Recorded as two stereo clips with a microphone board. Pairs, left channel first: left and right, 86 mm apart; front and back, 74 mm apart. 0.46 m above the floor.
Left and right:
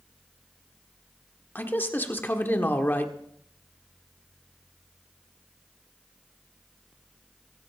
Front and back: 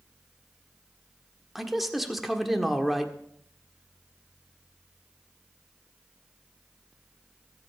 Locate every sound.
1.6 s a man speaking: 100° left, 1.4 m